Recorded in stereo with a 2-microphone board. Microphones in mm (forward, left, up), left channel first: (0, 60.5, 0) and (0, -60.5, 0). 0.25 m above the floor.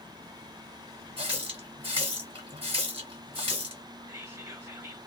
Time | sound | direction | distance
1.2 | a running tap | 50° right (ahead or behind) | 1.5 m
4.1 | whispering | 20° right (ahead or behind) | 1.3 m